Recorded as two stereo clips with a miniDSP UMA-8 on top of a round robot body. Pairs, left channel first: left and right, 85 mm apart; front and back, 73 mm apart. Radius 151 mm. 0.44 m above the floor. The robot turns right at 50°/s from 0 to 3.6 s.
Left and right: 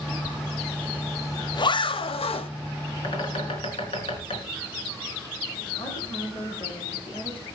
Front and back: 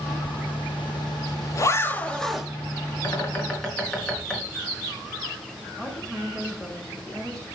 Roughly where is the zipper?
Ahead.